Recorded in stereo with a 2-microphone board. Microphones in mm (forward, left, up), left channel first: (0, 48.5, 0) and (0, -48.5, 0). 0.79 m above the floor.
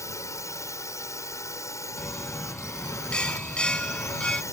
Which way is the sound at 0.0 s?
30° left (ahead or behind).